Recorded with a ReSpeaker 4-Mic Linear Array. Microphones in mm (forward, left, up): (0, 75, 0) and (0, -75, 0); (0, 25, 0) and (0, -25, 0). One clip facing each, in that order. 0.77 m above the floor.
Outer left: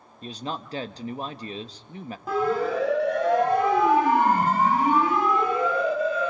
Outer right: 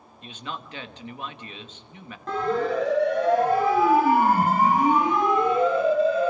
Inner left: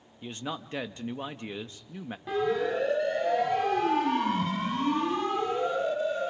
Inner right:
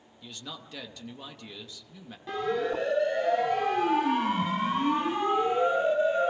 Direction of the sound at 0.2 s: 35° left (ahead or behind).